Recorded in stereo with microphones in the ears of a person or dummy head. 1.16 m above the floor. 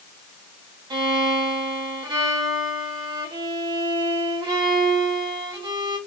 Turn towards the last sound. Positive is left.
turn(degrees=-25)  # may be behind; listen again after turning